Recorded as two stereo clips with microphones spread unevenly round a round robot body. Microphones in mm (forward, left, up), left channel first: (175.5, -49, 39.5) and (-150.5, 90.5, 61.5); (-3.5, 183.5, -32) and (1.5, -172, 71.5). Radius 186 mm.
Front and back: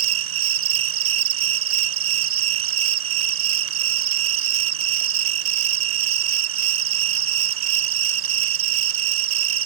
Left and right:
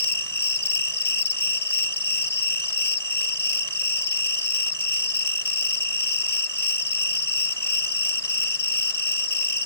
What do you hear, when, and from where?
0.0 s an insect: 170° right